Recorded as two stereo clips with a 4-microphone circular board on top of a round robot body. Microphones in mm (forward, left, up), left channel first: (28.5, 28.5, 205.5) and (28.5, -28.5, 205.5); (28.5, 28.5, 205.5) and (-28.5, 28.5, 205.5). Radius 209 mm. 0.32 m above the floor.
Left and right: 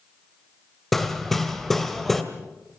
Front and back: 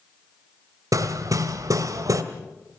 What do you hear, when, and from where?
0.9 s hammering: 175° left, 2.0 m